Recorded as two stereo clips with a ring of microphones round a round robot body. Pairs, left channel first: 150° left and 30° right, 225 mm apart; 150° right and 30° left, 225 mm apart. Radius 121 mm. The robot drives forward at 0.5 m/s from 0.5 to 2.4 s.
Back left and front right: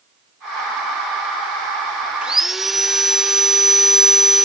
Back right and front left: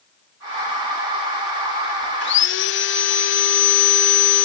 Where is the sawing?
115° right, 1.5 m; by 4.5 s 120° right, 1.6 m.